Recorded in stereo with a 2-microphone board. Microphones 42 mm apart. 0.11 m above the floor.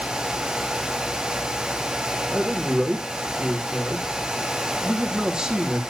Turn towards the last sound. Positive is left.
turn(degrees=-10)  # may be behind; listen again after turning